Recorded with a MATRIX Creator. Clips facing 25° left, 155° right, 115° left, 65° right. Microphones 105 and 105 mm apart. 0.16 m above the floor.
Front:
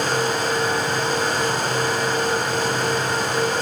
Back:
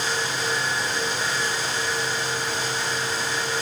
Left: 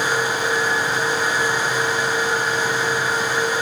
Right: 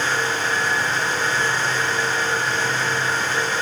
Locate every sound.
Only background noise.